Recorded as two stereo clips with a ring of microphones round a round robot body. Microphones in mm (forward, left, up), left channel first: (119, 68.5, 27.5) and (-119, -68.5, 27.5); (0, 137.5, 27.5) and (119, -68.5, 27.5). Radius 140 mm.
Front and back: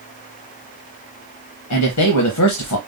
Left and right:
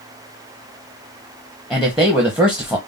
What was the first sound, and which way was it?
A man speaking, 25° left.